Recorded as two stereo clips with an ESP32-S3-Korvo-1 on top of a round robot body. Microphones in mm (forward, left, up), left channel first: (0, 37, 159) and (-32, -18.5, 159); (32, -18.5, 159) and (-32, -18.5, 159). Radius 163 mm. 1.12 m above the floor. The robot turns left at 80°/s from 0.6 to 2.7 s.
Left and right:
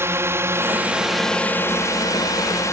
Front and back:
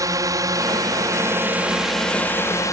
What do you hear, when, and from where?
0.0 s a drone: 165° right; by 2.7 s 30° left